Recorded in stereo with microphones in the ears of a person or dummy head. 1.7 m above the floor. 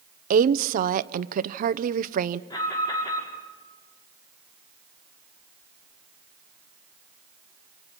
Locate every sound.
0.3 s a woman speaking: 40° right (ahead or behind), 0.8 m
2.5 s an alarm: 30° left (ahead or behind), 6 m